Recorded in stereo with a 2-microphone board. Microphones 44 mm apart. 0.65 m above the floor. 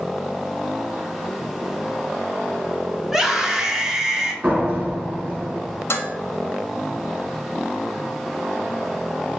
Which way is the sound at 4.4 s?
30° right (ahead or behind).